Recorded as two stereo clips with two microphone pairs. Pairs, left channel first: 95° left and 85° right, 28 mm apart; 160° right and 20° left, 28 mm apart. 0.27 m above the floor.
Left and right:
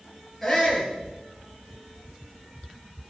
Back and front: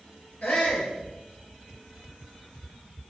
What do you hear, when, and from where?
0.4 s a shout: 170° left, 6.5 m